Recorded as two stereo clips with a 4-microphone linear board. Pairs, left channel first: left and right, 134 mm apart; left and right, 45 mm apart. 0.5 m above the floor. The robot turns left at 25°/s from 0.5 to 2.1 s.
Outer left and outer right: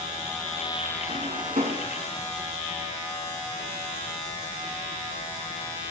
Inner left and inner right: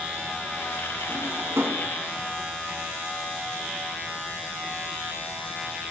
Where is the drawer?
70° right (ahead or behind), 1.7 m; by 1.9 s 90° right, 1.7 m.